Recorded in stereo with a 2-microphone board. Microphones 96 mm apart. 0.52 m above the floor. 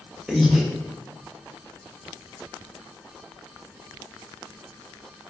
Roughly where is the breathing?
Centre.